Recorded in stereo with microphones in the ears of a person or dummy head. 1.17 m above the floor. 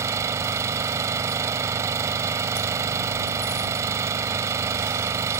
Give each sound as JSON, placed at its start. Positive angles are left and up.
{"t": 0.0, "sound": "an engine running", "side_deg": -15}